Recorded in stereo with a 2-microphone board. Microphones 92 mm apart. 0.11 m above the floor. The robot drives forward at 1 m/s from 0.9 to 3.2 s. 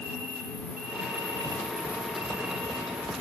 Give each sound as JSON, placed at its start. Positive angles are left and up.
{"t": 0.0, "sound": "an insect", "side_deg": -20, "distance_m": 0.9}